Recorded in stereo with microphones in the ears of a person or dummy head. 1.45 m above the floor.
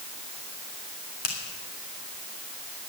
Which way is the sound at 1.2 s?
55° left (ahead or behind).